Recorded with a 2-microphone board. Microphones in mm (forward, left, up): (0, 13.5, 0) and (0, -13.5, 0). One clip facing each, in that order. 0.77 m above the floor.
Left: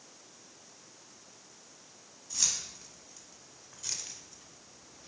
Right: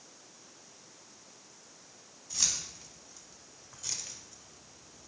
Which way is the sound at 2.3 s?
5° right (ahead or behind).